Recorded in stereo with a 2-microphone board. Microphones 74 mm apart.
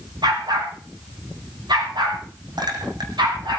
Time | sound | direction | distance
0.2 | a dog barking | 80° right | 5.5 m
2.6 | a clink | 75° right (ahead or behind) | 3 m